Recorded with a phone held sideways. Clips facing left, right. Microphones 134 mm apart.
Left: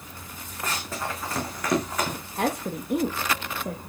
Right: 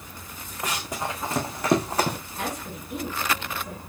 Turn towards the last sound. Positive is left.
turn(degrees=55)  # may be behind; listen again after turning